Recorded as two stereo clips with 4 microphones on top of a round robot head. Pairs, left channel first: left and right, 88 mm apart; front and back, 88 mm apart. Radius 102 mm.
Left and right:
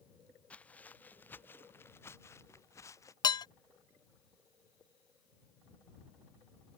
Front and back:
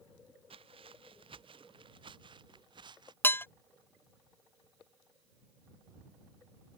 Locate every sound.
0.5 s footsteps: 165° left; by 3.1 s 145° left
3.2 s dishes clattering: 65° left